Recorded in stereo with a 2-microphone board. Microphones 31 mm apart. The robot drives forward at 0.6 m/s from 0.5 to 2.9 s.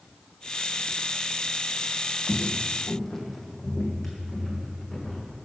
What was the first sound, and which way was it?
Footsteps, 20° left (ahead or behind).